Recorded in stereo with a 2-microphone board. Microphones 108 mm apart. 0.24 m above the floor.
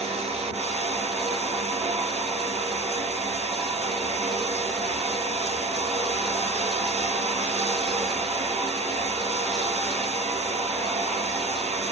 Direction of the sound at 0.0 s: 80° right.